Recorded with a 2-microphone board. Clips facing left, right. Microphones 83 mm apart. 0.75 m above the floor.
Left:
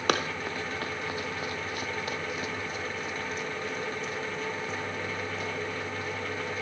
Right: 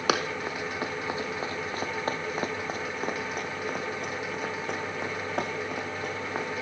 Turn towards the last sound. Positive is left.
turn(degrees=-75)  # may be behind; listen again after turning